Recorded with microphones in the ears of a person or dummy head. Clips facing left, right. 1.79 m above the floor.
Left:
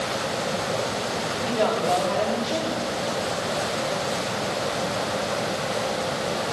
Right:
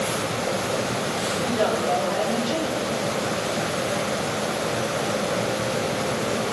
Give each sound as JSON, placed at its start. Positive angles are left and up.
{"t": 1.4, "sound": "a woman speaking", "side_deg": -15, "distance_m": 4.5}